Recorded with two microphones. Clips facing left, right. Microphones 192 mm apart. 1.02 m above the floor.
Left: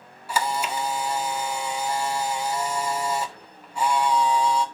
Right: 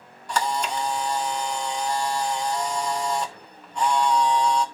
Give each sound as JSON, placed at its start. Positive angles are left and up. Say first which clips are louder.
{"t": 0.3, "sound": "a camera shutter", "louder": "right 1 dB", "side_deg": 10, "distance_m": 1.5}